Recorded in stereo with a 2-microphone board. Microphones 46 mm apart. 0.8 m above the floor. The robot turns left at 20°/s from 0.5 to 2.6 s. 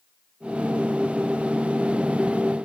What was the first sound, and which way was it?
Only background noise.